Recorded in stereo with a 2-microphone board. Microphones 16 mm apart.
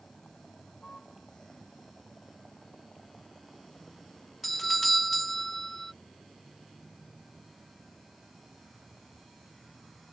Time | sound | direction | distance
0.0 | a vehicle | 55° left (ahead or behind) | ?
4.4 | a doorbell | 5° left (ahead or behind) | ?